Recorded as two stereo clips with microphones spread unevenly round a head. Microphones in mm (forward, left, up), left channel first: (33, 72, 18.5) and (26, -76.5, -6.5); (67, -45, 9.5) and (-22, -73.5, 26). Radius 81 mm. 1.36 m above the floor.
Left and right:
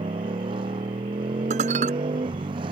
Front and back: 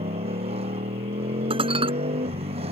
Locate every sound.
0.0 s a motorcycle: 155° right
1.5 s dishes clattering: 145° right